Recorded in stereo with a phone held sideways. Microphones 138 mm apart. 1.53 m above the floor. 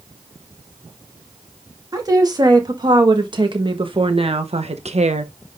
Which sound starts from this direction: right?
A woman speaking, at 1.9 s.